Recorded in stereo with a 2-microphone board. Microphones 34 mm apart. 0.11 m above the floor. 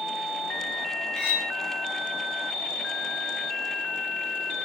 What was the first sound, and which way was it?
Cutlery clinking, 15° left (ahead or behind).